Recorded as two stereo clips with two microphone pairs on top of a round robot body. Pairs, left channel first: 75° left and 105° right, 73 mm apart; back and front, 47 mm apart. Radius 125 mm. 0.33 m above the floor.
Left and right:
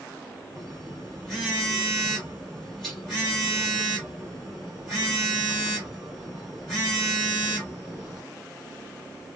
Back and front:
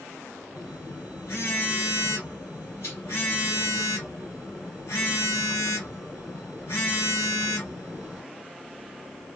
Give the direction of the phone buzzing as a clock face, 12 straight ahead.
6 o'clock.